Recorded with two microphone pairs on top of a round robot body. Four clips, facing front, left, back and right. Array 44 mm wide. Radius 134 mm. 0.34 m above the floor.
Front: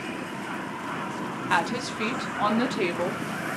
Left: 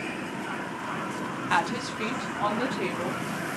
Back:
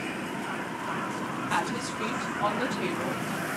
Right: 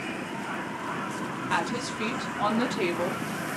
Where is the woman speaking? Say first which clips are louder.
Left 3 dB, front 5 dB; 45° left, 1.3 m; by 3.2 s 30° right, 1.7 m.